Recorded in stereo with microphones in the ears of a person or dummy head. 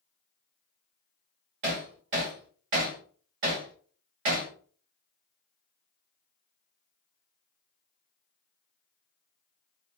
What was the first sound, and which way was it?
Hammering, 35° right (ahead or behind).